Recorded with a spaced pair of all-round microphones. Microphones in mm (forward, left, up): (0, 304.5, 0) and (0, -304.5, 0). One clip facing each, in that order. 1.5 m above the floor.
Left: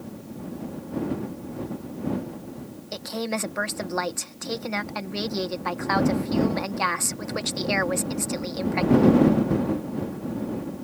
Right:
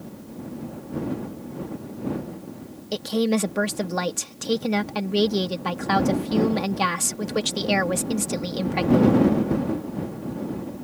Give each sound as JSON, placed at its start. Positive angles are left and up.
{"t": 2.9, "sound": "a woman speaking", "side_deg": -55}